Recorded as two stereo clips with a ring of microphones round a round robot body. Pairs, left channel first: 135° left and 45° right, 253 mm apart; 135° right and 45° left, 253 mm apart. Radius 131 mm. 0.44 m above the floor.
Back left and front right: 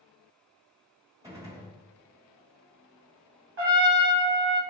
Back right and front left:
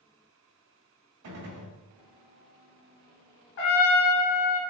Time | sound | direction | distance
1.2 | a gunshot | 30° left | 1.3 m
3.6 | a trumpet | 90° right | 0.9 m